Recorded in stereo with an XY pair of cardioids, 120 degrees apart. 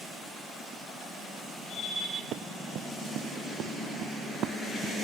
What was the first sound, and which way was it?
Running footsteps, 65° right.